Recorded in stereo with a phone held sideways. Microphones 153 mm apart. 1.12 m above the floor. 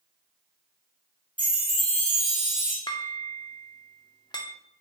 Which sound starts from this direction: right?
A chime, at 1.4 s.